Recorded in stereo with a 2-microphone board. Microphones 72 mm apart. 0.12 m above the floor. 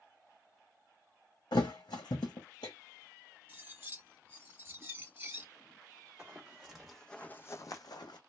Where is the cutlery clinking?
30° right (ahead or behind), 1.4 m.